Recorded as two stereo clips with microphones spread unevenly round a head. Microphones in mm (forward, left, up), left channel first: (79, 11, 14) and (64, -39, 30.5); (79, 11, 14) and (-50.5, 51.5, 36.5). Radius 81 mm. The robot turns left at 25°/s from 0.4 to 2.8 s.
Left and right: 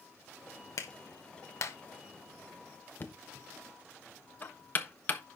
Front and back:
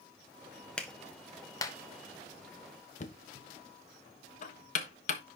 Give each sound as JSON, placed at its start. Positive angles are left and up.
{"t": 0.8, "sound": "a clap", "azimuth_deg": 70, "distance_m": 1.2}
{"t": 3.0, "sound": "knocking", "azimuth_deg": 15, "distance_m": 1.2}